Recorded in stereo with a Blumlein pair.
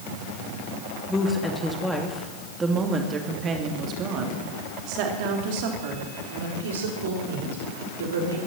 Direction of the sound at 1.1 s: 10° left.